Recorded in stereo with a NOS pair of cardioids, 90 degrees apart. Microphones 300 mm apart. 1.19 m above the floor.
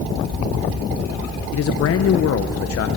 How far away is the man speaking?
About 0.6 m.